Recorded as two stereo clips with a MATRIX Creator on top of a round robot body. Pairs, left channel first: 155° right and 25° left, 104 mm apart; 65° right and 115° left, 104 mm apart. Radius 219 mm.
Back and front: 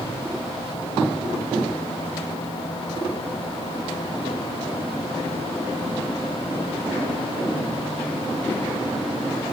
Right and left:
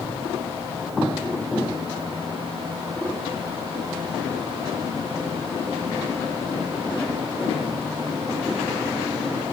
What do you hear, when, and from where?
Only background noise.